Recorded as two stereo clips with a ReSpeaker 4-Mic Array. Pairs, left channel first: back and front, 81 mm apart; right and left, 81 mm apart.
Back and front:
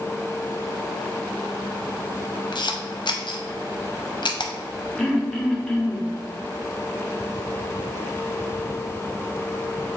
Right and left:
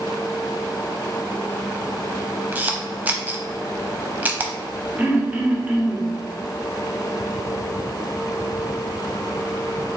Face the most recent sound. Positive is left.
turn(degrees=110)